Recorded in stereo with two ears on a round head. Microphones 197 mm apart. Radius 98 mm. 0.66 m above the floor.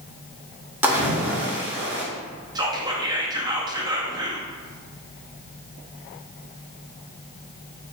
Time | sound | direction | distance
0.8 | a splash | 10° right (ahead or behind) | 0.9 m
2.5 | whispering | 20° right (ahead or behind) | 0.5 m